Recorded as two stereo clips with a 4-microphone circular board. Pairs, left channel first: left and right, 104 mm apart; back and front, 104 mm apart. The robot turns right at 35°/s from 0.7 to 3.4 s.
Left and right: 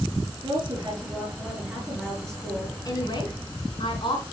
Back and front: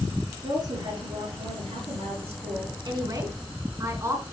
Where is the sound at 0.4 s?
40° right, 4 m; by 2.8 s 30° left, 4 m.